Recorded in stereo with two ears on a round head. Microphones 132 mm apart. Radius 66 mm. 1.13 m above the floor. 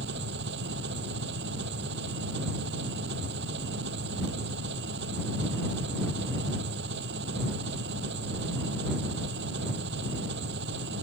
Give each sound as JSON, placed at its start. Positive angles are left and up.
{"t": 0.0, "sound": "an engine running", "side_deg": -85}